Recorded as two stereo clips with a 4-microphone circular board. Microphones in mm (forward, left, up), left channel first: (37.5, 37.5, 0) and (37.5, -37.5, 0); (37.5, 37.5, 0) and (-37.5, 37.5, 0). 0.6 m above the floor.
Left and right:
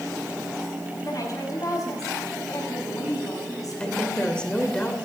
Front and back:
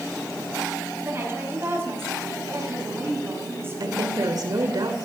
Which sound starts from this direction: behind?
A woman speaking, at 3.8 s.